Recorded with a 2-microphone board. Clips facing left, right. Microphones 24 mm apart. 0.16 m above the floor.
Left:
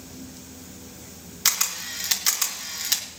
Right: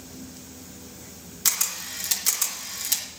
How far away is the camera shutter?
About 1.6 m.